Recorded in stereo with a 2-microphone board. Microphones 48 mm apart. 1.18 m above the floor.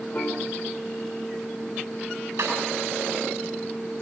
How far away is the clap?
About 9.5 m.